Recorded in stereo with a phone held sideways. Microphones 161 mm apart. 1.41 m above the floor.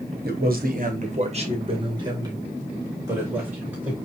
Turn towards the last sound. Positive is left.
turn(degrees=-10)  # may be behind; listen again after turning